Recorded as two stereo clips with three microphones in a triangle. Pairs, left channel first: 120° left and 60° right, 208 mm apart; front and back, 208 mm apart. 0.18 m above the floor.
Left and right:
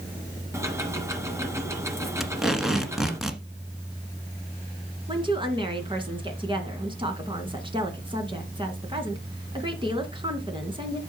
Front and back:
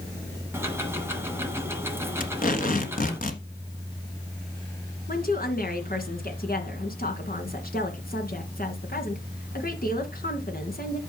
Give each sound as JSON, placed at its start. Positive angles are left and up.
{"t": 0.5, "sound": "ticking", "azimuth_deg": -115, "distance_m": 1.7}
{"t": 2.2, "sound": "tape being pulled", "azimuth_deg": 30, "distance_m": 1.4}
{"t": 5.1, "sound": "a woman speaking", "azimuth_deg": -5, "distance_m": 2.0}